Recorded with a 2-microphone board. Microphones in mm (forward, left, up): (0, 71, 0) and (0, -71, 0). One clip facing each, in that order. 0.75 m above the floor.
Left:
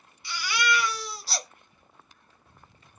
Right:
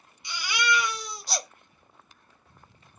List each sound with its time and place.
0.2 s a baby crying: 20° right (ahead or behind), 0.7 m